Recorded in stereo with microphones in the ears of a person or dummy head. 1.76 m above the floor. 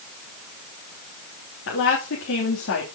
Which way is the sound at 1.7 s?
75° left (ahead or behind).